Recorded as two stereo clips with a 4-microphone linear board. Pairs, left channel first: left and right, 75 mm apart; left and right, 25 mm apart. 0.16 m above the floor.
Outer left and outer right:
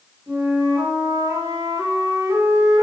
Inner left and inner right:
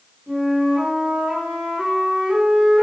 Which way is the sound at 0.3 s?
50° right (ahead or behind).